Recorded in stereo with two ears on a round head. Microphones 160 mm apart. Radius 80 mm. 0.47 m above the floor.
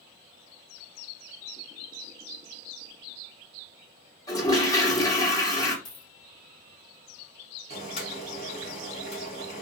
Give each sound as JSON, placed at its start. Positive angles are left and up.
{"t": 4.3, "sound": "a toilet flushing", "side_deg": 20, "distance_m": 1.0}
{"t": 5.8, "sound": "a dropped coin", "side_deg": 45, "distance_m": 2.5}
{"t": 7.7, "sound": "boiling", "side_deg": 35, "distance_m": 2.0}